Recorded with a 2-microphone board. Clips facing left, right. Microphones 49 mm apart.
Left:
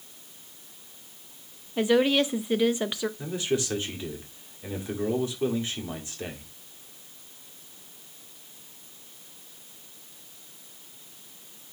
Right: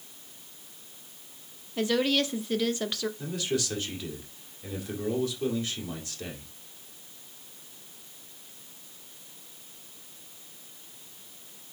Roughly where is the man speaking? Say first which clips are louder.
Left 3 dB; left.